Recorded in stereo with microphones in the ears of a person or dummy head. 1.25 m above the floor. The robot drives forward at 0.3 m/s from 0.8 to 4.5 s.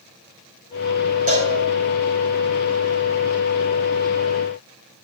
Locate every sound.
1.3 s a cowbell: 45° right (ahead or behind), 3.5 m